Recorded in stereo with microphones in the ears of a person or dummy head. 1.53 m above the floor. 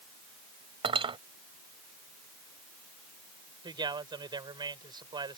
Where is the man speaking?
20° right (ahead or behind).